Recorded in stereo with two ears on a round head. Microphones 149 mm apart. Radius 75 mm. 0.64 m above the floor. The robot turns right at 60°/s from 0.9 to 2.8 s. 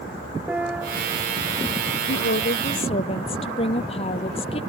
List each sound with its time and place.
0.5 s a piano: 10° right (ahead or behind); by 1.0 s 5° right (ahead or behind)
2.1 s a woman speaking: 100° left; by 4.6 s 145° left